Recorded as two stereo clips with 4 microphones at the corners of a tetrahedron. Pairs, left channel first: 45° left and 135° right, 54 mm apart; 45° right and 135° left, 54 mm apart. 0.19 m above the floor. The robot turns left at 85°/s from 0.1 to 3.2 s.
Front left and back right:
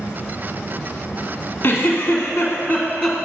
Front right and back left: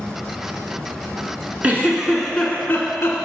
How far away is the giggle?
About 1.2 m.